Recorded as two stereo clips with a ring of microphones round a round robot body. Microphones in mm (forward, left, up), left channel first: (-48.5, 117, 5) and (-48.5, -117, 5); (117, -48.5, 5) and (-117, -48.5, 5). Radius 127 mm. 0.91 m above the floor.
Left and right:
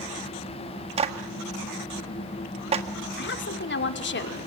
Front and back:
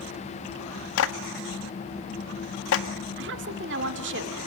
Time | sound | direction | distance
1.0 | a clap | 25° right | 1.6 m
3.2 | a woman speaking | 130° left | 2.5 m